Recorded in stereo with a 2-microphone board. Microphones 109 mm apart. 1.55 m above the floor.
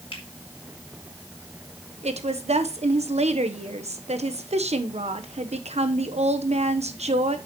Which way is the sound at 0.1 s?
55° left (ahead or behind).